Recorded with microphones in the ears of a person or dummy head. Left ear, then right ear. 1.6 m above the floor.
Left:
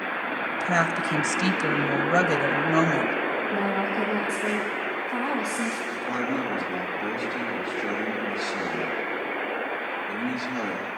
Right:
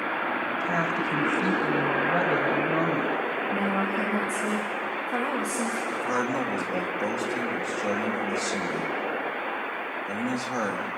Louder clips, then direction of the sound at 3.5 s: Left 1 dB; 10° right (ahead or behind).